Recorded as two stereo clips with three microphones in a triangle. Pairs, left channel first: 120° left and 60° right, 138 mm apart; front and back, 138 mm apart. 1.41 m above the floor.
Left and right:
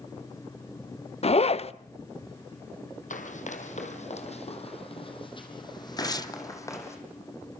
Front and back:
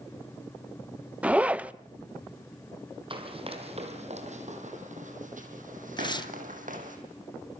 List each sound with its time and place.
1.2 s a zipper: 105° left, 0.6 m
3.1 s running footsteps: 135° left, 3.5 m; by 7.0 s 170° right, 4.5 m
6.0 s tearing paper: 55° left, 1.1 m